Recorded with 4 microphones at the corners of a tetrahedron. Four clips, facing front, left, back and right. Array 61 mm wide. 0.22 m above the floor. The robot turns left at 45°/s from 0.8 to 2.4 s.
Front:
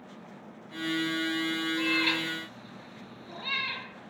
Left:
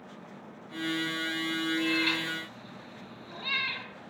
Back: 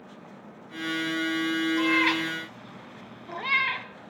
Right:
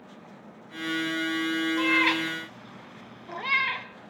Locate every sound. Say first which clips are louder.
1.8 s a cat meowing: right 7 dB, back 4 dB; 110° right, 0.6 m; by 3.9 s 140° right, 0.6 m